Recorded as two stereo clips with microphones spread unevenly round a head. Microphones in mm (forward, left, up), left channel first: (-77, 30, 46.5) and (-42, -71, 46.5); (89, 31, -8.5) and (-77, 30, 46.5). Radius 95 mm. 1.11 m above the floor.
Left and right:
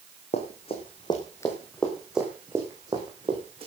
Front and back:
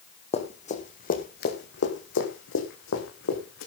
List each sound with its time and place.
0.3 s running footsteps: 60° left, 4 m; by 3.7 s 15° right, 4.5 m